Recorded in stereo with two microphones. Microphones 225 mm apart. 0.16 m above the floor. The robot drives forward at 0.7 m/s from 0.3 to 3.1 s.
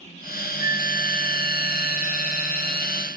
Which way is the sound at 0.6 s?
15° right (ahead or behind).